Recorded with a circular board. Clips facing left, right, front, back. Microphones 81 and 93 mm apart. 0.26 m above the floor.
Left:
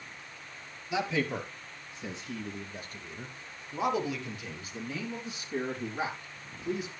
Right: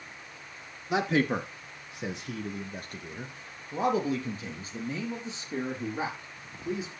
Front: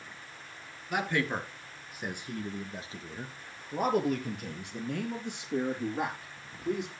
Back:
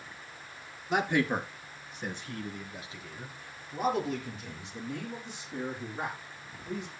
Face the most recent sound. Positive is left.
turn(degrees=-20)